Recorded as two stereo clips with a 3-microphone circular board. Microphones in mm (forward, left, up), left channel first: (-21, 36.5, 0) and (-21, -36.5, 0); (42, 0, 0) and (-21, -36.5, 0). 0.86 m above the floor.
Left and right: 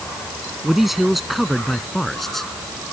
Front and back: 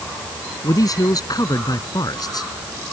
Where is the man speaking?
5° right; by 2.5 s 5° left.